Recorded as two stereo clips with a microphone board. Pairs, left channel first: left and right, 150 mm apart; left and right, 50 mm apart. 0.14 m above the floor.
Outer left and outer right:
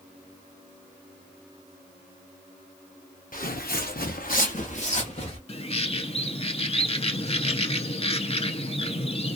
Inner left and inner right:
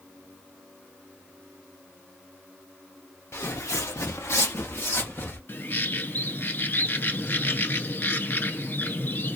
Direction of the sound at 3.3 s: 65° left (ahead or behind).